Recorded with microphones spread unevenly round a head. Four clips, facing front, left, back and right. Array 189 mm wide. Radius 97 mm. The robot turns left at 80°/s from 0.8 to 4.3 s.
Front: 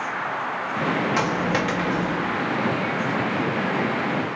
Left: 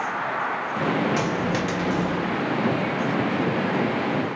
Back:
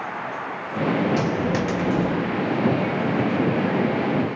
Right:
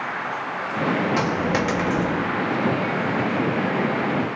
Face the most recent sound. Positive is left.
turn(degrees=70)